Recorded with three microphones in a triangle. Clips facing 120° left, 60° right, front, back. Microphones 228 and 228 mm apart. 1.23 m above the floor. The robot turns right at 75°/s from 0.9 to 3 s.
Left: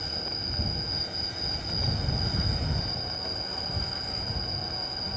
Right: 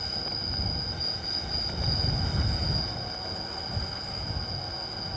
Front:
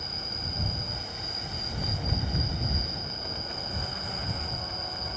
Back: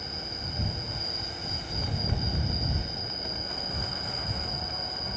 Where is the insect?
10° left; by 5.2 s 170° left.